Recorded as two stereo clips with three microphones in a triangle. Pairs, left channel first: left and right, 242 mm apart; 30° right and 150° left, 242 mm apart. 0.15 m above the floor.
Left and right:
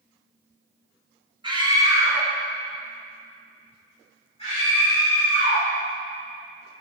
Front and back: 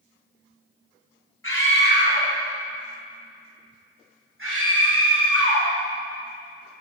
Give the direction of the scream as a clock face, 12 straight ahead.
1 o'clock.